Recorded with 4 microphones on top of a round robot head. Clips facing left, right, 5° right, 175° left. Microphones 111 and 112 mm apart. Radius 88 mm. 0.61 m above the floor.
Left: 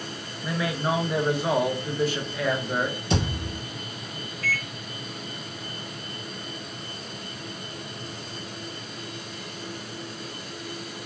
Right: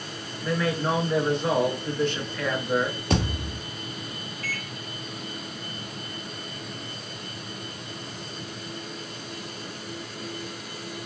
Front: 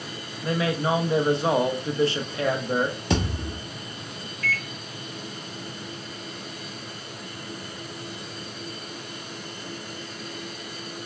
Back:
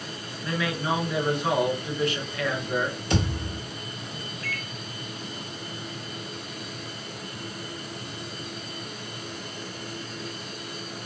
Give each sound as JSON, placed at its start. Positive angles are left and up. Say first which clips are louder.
{"t": 0.4, "sound": "a man speaking", "louder": "right 2 dB, front 4 dB", "azimuth_deg": 15, "distance_m": 0.6}
{"t": 3.1, "sound": "a thud", "louder": "right 1 dB, front 1 dB", "azimuth_deg": -30, "distance_m": 0.7}
{"t": 4.4, "sound": "a microwave", "louder": "left 7 dB, front 9 dB", "azimuth_deg": 105, "distance_m": 1.1}